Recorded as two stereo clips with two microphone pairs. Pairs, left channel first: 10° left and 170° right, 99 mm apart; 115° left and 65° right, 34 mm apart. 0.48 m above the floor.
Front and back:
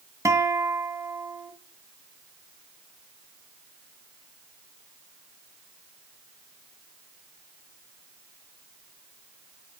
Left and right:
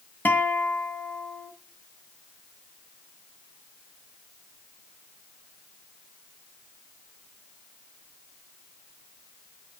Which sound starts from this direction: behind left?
A guitar, at 0.2 s.